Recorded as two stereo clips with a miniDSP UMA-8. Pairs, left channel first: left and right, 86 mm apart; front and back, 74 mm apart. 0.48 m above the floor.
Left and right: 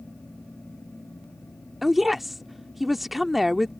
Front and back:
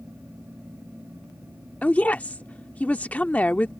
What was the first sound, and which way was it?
A woman speaking, 5° right.